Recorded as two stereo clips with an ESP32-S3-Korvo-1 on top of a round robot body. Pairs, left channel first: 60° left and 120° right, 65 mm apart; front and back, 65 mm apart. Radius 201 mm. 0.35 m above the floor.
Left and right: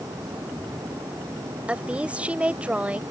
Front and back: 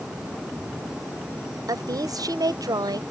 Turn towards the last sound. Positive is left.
turn(degrees=170)